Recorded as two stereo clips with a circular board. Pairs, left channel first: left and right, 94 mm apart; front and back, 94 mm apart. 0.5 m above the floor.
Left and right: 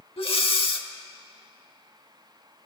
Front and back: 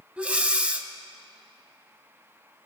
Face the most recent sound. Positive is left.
turn(degrees=105)